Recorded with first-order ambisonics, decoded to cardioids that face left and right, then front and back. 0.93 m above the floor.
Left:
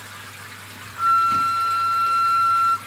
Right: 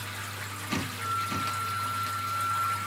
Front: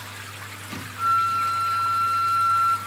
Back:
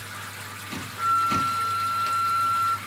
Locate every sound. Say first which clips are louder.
1.0 s a flute: left 16 dB, front 1 dB; 80° left, 0.7 m